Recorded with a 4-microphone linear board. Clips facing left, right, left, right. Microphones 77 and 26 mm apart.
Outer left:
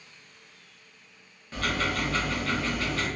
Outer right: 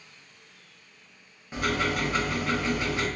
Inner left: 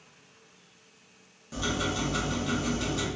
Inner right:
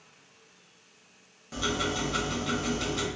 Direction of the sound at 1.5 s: 15° right (ahead or behind).